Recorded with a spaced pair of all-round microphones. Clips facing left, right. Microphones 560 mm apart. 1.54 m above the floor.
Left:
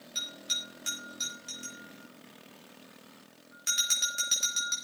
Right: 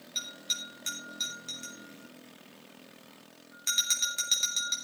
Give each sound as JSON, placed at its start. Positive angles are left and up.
{"t": 0.1, "sound": "a bell", "side_deg": 35, "distance_m": 5.0}